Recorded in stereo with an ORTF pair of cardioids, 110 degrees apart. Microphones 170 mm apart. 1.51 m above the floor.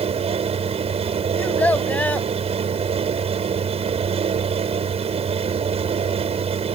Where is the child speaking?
10° left.